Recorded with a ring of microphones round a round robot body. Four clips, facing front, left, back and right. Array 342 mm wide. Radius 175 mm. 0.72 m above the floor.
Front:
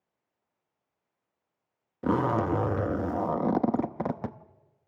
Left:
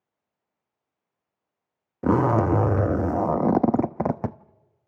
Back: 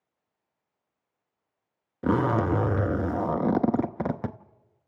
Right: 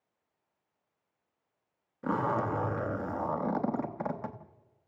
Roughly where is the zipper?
Left.